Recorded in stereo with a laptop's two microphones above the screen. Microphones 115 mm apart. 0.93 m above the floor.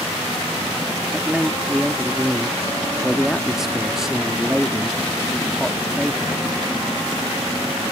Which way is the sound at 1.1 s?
5° right (ahead or behind).